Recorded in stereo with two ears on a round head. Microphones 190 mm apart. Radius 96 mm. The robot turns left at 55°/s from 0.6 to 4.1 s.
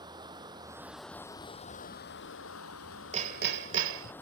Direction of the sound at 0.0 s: 155° right.